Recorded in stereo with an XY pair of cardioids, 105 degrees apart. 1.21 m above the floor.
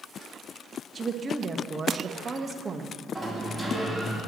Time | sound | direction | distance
0.9 | a woman speaking | 35° right | 1.4 m
3.1 | a sliding door | 5° right | 3.5 m